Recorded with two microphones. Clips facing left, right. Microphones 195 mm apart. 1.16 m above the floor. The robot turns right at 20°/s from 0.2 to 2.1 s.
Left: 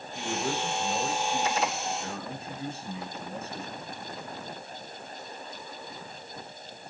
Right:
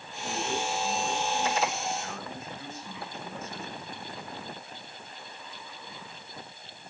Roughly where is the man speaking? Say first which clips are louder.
Left 1 dB; left.